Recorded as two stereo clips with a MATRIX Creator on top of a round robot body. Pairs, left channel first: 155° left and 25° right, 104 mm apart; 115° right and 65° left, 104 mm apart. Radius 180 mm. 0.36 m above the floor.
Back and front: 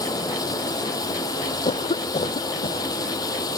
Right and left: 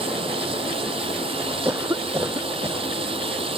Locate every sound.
0.0 s running water: 100° left
1.6 s a cough: 130° left